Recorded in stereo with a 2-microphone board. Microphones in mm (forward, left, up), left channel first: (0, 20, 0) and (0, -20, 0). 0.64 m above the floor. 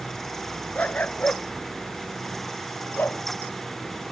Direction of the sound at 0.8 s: 35° left (ahead or behind).